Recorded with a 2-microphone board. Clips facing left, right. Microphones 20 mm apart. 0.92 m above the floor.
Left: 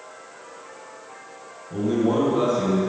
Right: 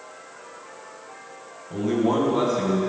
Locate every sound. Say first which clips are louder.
1.7 s a man speaking: left 1 dB; 65° right (ahead or behind), 5 m; by 2.8 s 60° right (ahead or behind), 4 m